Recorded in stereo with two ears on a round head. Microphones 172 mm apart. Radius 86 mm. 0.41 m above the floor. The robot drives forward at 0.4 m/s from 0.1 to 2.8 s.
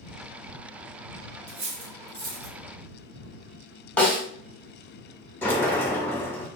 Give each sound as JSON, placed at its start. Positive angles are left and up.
{"t": 1.5, "sound": "cutlery clinking", "side_deg": -60, "distance_m": 1.2}
{"t": 4.0, "sound": "a snare drum", "side_deg": 5, "distance_m": 0.8}
{"t": 5.4, "sound": "a sliding door", "side_deg": 10, "distance_m": 0.6}